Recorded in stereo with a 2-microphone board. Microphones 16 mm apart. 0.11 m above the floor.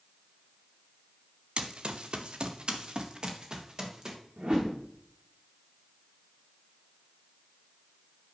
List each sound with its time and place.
1.6 s running footsteps: 70° right (ahead or behind), 1.7 m; by 4.2 s 45° right (ahead or behind), 3 m
4.4 s a whoosh: 65° right (ahead or behind), 4 m